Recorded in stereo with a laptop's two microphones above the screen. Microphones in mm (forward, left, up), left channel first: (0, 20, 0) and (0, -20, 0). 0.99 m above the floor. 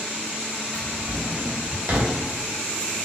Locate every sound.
0.7 s a drawer: 55° right (ahead or behind), 1.5 m